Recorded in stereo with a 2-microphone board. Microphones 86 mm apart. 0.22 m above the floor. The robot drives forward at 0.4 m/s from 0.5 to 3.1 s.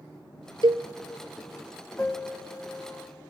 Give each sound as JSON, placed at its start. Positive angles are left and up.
{"t": 0.6, "sound": "a cowbell", "side_deg": -80, "distance_m": 0.8}
{"t": 2.0, "sound": "a piano", "side_deg": 25, "distance_m": 0.8}